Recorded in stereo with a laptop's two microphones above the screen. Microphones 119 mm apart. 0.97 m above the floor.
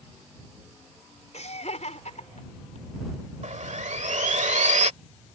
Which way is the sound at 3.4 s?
75° right (ahead or behind).